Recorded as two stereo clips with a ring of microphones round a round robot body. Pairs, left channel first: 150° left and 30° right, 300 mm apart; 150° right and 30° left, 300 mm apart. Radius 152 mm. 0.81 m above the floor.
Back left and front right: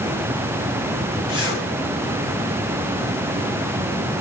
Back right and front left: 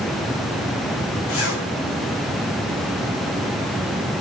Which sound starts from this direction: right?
A zipper, at 1.3 s.